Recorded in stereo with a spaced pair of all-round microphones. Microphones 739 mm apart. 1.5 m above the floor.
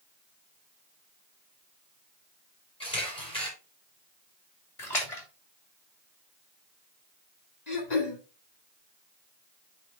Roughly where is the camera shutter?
Centre.